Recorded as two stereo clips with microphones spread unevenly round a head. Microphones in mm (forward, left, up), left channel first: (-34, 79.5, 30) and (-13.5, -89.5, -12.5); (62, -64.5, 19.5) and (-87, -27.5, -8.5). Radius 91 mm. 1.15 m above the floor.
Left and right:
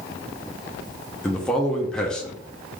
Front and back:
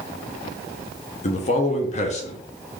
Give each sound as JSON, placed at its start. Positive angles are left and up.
{"t": 1.2, "sound": "a man speaking", "azimuth_deg": -10, "distance_m": 0.7}